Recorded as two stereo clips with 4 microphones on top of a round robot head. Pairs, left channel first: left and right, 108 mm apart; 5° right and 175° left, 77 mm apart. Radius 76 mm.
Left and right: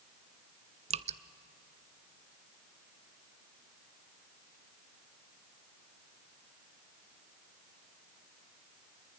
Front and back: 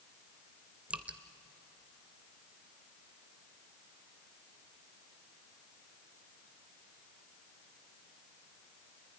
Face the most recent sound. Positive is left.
turn(degrees=-105)